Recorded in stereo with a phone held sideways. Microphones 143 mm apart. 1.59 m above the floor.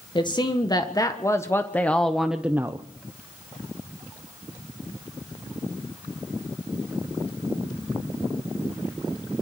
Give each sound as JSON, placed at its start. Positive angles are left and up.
{"t": 0.1, "sound": "a man speaking", "side_deg": 35, "distance_m": 1.7}